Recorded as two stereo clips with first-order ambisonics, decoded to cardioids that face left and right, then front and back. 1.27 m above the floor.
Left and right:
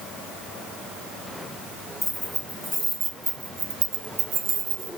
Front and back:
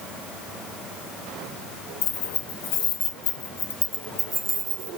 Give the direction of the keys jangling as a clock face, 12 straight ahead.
12 o'clock.